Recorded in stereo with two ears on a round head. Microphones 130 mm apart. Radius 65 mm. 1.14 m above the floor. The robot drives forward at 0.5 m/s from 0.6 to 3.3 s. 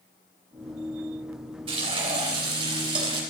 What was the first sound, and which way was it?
Frying, 35° right (ahead or behind).